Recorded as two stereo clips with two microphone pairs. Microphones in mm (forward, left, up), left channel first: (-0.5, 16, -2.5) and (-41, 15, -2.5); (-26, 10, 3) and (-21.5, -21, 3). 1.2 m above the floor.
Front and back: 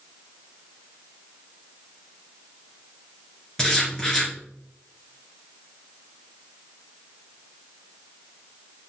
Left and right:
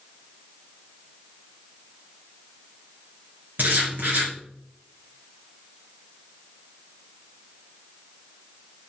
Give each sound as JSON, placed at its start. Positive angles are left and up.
{"t": 3.6, "sound": "writing", "azimuth_deg": -75, "distance_m": 3.0}